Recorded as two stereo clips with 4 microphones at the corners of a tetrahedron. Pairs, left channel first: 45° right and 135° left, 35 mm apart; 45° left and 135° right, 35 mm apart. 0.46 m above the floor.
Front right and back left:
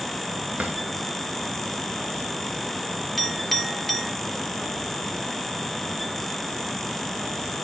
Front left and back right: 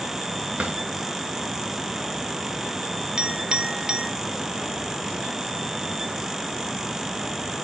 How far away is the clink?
About 0.5 m.